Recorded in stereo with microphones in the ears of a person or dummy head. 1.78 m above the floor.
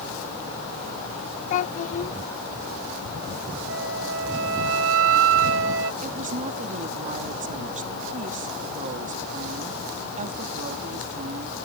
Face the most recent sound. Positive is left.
turn(degrees=-40)  # may be behind; listen again after turning